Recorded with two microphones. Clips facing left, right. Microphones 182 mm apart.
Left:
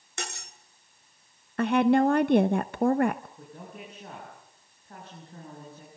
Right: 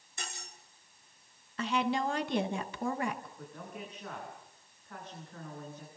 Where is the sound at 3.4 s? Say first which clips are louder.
Left 1 dB; 30° left (ahead or behind), 9.5 m.